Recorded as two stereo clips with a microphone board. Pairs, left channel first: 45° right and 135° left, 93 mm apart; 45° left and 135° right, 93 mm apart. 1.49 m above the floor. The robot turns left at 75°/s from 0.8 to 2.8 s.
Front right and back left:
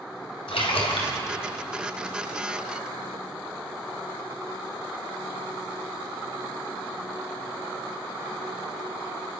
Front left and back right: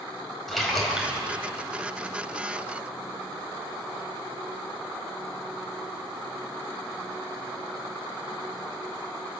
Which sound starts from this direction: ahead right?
A splash, at 0.5 s.